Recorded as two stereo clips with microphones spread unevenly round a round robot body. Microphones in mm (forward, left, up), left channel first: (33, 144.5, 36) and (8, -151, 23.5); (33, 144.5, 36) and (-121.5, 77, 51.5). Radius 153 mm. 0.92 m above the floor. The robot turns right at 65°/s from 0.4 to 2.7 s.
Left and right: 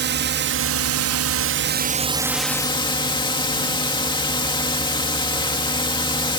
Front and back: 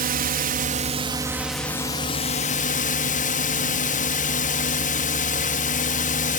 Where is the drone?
135° right; by 6.4 s 10° left.